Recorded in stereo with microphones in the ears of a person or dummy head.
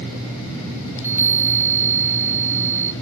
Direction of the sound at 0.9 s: 10° right (ahead or behind).